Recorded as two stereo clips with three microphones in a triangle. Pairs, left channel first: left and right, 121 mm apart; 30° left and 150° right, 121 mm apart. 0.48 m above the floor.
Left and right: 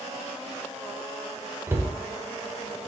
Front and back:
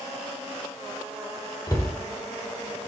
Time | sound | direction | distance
1.7 | a cupboard door | 25° right | 1.0 m